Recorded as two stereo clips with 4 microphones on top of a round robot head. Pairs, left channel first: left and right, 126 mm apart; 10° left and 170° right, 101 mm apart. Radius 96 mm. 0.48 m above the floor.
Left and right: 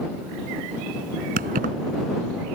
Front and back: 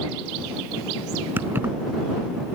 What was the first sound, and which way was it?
Keys jangling, 90° right.